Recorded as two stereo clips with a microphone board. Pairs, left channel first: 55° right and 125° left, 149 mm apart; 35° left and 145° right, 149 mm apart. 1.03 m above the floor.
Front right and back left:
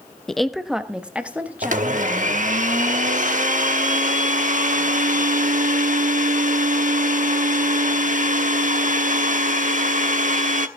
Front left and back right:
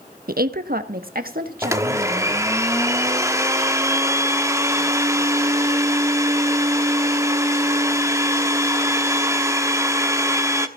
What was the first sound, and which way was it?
A woman speaking, 140° right.